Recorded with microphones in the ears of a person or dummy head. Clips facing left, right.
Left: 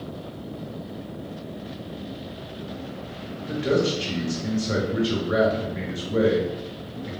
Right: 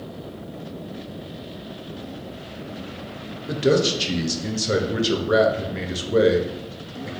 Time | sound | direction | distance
3.5 | a man speaking | 50° right (ahead or behind) | 0.6 m